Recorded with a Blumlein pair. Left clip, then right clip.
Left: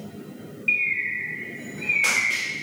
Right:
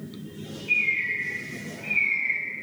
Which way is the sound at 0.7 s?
40° left.